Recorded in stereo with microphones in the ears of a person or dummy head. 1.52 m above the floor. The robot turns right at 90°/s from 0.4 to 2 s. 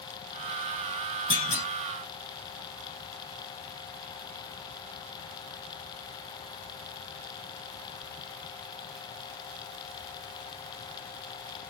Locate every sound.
1.3 s a clunk: 30° left (ahead or behind), 1.5 m; by 1.6 s 60° left (ahead or behind), 1.5 m